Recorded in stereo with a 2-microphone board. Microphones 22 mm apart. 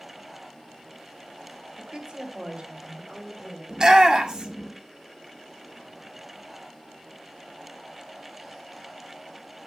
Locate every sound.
1.8 s a woman speaking: 50° right (ahead or behind), 3 m; by 3.6 s 45° right (ahead or behind), 4 m
3.7 s a shout: 40° right (ahead or behind), 2 m